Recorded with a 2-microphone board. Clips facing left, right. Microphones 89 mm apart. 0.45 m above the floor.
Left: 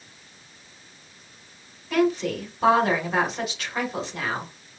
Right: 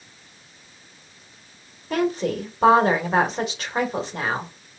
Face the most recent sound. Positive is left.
turn(degrees=-35)  # may be behind; listen again after turning